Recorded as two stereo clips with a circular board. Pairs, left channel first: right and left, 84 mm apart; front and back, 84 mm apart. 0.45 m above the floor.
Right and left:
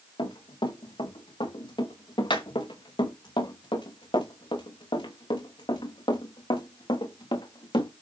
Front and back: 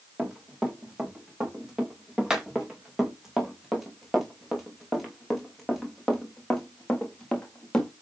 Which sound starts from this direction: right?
Running footsteps, at 0.2 s.